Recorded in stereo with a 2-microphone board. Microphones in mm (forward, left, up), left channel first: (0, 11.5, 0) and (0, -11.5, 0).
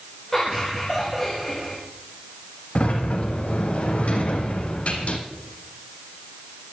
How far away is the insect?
No insect in this recording.